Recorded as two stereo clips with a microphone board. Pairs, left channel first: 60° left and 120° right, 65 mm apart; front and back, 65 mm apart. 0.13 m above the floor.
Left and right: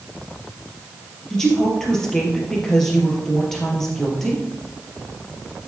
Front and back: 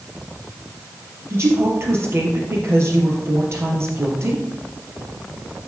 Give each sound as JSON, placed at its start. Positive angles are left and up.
{"t": 1.3, "sound": "a woman speaking", "azimuth_deg": 145, "distance_m": 3.5}